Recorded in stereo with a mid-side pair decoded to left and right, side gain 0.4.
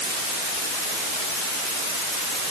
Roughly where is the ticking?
I don't hear ticking.